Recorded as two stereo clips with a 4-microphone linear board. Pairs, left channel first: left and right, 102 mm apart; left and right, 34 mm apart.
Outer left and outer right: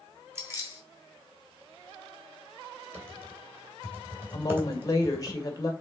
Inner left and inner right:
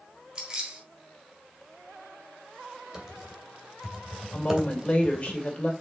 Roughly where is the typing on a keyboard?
Right.